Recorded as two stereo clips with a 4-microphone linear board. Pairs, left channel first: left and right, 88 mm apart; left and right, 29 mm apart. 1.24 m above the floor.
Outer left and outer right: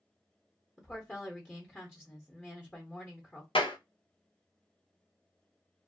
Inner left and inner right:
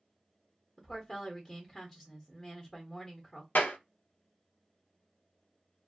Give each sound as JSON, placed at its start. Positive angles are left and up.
{"t": 0.8, "sound": "a woman speaking", "side_deg": 15, "distance_m": 0.9}
{"t": 3.5, "sound": "a clap", "side_deg": 80, "distance_m": 0.7}